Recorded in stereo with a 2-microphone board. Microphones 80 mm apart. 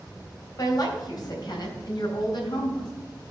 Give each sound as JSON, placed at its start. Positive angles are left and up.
{"t": 0.6, "sound": "a woman speaking", "side_deg": 50, "distance_m": 3.0}